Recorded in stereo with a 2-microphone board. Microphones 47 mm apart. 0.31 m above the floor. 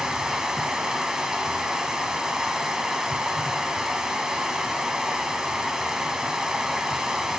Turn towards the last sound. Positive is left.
turn(degrees=-10)  # may be behind; listen again after turning